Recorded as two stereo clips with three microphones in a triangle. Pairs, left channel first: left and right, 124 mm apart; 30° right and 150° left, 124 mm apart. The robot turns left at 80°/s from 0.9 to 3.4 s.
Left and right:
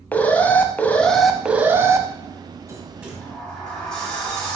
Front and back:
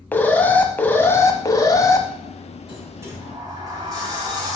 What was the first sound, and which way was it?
An alarm, 30° left.